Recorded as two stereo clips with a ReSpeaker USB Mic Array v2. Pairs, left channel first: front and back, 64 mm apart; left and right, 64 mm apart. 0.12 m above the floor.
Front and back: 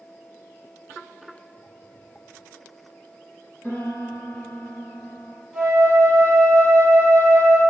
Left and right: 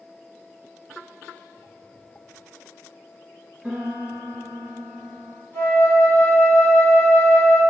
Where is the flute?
90° left, 2.0 m.